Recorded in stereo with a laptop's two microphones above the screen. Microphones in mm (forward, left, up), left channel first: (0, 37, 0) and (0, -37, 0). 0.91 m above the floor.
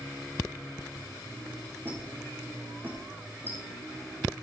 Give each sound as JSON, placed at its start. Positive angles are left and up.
{"t": 1.9, "sound": "a squeak", "side_deg": -25, "distance_m": 3.0}